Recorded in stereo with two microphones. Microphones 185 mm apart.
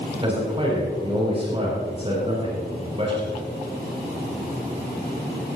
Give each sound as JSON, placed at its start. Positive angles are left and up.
{"t": 0.2, "sound": "a man speaking", "side_deg": -30, "distance_m": 6.0}